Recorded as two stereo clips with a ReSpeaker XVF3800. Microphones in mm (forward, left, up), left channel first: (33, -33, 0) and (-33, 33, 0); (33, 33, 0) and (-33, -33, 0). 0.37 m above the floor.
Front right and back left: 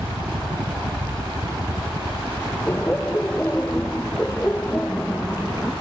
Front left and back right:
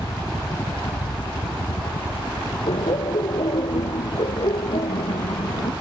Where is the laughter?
25° left.